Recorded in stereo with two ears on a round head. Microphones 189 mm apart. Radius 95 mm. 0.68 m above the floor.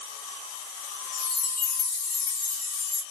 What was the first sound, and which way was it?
A chime, 45° left (ahead or behind).